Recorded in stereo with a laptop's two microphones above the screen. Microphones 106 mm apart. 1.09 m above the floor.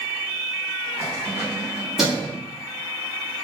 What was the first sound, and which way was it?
Keys jangling, 20° right (ahead or behind).